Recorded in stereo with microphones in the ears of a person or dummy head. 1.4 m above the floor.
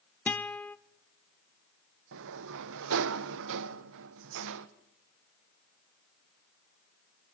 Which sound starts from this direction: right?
A sliding door, at 2.1 s.